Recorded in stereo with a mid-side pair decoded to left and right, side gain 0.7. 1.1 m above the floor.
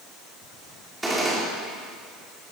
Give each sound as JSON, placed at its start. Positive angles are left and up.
{"t": 1.0, "sound": "a gunshot", "azimuth_deg": -10, "distance_m": 3.0}